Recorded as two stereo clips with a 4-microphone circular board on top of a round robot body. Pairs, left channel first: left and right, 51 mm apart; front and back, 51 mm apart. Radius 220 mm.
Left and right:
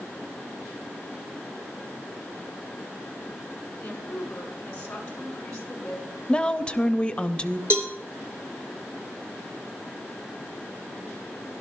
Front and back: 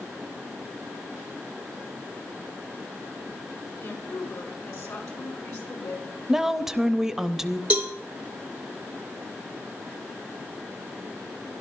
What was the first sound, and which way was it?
A woman speaking, 20° left.